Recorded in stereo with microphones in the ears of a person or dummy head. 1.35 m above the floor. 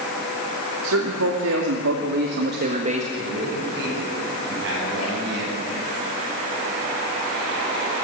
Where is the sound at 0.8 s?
80° right, 3 m; by 3.0 s 30° right (ahead or behind), 1.4 m.